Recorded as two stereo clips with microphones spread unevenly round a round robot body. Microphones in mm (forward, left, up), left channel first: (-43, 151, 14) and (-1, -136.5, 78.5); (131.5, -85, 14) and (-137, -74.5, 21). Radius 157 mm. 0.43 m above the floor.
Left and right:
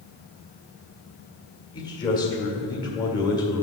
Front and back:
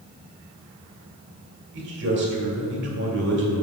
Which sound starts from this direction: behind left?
A man speaking, at 1.7 s.